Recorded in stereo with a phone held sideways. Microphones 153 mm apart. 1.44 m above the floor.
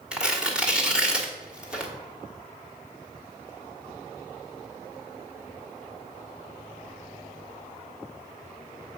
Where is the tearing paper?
5° right (ahead or behind), 1.5 m.